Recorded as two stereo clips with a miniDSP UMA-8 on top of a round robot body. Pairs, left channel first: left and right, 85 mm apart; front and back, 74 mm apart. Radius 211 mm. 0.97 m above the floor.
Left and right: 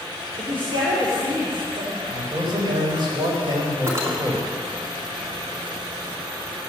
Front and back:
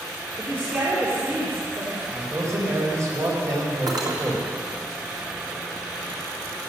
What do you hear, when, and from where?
0.4 s a woman speaking: 115° right, 3 m
2.1 s a man speaking: 125° right, 4 m
3.9 s cutlery clinking: 150° right, 2.0 m